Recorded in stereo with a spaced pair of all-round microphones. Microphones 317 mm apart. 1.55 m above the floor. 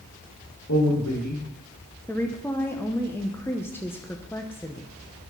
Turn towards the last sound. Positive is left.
turn(degrees=5)  # may be behind; listen again after turning